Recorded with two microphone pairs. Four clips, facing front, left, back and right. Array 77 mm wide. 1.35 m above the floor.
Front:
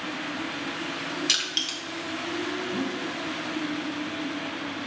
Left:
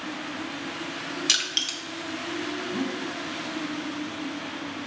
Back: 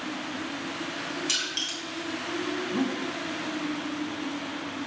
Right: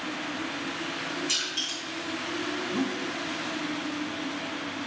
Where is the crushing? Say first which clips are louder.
Left 2 dB, front 1 dB; 70° left, 0.6 m.